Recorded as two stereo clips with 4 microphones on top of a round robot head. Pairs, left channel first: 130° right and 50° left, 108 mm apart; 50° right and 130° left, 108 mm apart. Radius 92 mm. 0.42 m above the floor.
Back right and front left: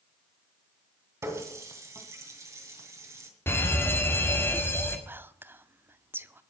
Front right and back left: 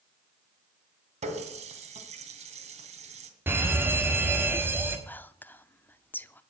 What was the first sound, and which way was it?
A running tap, 115° left.